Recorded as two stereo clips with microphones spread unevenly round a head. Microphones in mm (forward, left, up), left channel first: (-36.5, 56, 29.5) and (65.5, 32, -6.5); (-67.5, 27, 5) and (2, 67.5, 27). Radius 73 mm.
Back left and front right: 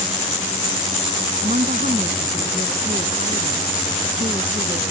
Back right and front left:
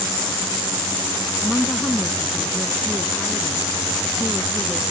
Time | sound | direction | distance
1.4 | a woman speaking | 60° right | ?